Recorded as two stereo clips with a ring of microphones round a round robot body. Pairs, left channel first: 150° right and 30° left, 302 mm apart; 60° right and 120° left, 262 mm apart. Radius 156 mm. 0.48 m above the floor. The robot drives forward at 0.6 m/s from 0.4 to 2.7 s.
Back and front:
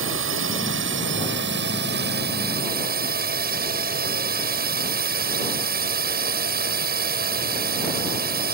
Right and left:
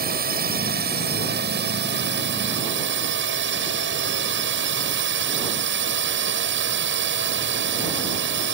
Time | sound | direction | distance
0.0 | a drone | 70° left | ?